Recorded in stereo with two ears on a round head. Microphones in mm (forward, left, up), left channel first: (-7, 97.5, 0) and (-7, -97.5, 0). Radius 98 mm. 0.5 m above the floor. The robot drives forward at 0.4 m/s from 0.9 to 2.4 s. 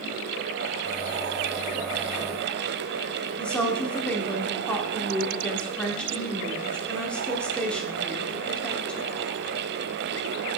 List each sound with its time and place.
3.4 s a woman speaking: 5° left (ahead or behind), 0.9 m